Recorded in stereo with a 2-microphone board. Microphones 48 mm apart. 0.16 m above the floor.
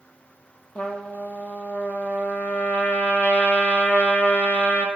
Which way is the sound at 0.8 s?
35° left (ahead or behind).